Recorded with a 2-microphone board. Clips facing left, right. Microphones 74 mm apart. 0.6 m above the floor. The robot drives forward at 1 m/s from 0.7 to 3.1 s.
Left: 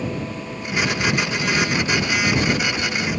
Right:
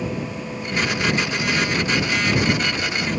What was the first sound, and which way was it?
Only background noise.